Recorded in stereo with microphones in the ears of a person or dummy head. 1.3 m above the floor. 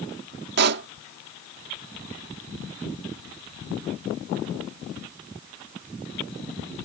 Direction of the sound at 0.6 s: 60° right (ahead or behind).